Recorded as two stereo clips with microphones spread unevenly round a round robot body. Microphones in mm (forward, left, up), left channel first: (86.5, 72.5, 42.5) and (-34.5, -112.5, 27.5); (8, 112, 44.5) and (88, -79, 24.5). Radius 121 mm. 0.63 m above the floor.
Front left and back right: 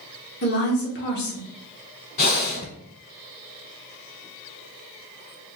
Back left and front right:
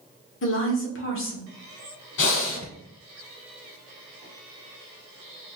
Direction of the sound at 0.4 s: 100° left.